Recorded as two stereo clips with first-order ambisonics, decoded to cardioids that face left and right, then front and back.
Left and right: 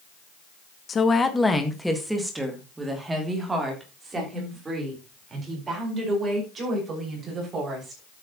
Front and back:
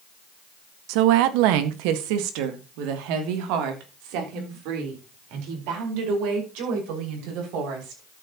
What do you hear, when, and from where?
0.9 s a woman speaking: 160° left, 1.1 m; by 8.0 s 155° right, 6.5 m